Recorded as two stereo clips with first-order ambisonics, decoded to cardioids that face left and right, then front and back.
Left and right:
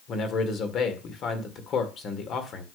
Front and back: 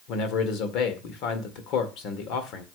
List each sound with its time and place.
0.1 s a man speaking: 35° left, 1.7 m